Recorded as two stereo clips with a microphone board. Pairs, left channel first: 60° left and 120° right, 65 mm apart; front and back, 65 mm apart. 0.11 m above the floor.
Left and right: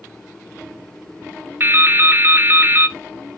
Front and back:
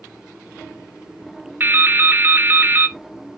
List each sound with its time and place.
1.6 s dripping: 145° right, 0.7 m